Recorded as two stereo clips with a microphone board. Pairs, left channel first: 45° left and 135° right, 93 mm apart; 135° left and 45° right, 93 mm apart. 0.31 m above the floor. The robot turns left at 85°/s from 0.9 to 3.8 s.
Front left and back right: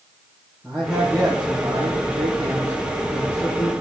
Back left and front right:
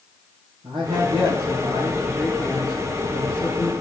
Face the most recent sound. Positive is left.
turn(degrees=70)